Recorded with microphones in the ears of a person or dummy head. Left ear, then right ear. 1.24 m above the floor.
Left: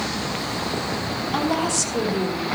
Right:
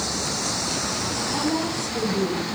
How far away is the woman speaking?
About 3 m.